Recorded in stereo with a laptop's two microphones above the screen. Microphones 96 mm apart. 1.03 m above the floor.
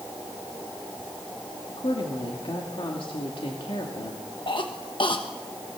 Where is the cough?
60° left (ahead or behind), 1.3 m.